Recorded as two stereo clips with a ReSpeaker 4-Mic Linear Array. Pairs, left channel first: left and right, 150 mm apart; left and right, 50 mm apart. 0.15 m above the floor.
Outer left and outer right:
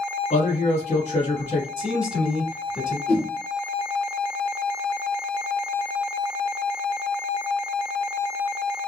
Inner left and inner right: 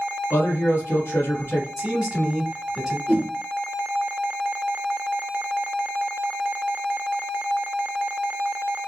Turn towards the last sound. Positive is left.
turn(degrees=35)  # may be behind; listen again after turning